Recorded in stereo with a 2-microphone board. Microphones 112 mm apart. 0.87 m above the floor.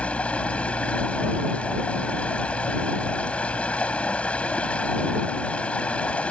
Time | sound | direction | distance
0.0 | running water | 10° left (ahead or behind) | ?